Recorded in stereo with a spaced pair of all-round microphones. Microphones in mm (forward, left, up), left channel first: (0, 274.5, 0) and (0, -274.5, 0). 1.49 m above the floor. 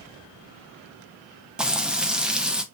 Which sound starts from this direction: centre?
Frying, at 1.6 s.